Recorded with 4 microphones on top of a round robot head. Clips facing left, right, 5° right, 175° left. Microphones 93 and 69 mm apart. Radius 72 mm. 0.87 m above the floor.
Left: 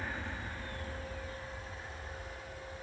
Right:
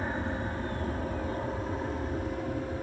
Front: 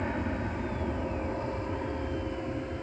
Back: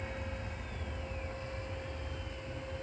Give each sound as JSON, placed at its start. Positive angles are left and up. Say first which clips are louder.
{"t": 0.0, "sound": "an aircraft", "louder": "right 9 dB, front 10 dB", "azimuth_deg": -30}